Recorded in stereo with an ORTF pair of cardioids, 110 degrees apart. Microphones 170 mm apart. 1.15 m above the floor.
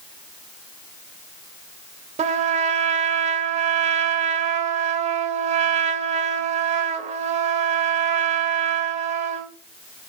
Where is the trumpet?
45° right, 2.0 m.